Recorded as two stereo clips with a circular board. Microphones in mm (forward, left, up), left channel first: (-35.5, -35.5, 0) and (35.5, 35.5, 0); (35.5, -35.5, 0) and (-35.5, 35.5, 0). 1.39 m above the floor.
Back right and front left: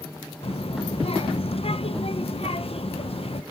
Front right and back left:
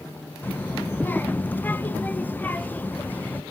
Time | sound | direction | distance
0.4 | a child speaking | 120° right | 0.9 m